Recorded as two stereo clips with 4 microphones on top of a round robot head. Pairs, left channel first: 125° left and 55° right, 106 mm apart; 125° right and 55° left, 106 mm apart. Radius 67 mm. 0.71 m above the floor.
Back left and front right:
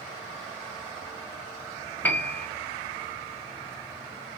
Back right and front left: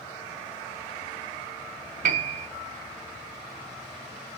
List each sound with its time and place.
2.0 s a piano: 50° left, 0.8 m